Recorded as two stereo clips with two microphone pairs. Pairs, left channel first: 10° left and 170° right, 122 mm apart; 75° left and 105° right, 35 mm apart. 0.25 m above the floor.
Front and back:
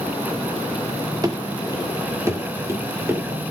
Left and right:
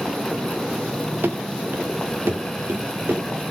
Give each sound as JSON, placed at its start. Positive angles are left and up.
{"t": 1.2, "sound": "running footsteps", "azimuth_deg": -110, "distance_m": 1.5}